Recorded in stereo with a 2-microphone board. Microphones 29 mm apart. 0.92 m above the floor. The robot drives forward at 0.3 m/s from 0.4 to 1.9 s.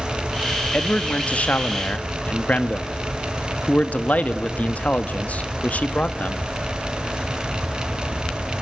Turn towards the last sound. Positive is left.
turn(degrees=60)  # may be behind; listen again after turning